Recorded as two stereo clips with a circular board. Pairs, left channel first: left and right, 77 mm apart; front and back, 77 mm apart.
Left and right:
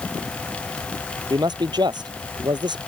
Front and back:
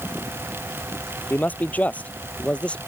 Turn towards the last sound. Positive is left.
turn(degrees=-75)